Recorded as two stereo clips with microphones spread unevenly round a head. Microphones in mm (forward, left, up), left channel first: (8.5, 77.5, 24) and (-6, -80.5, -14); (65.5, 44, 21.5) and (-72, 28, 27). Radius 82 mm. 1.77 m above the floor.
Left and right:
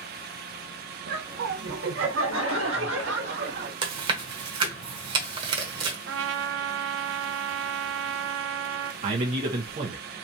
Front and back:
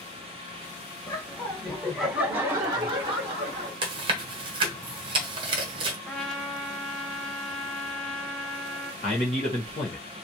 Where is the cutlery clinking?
No cutlery clinking in this recording.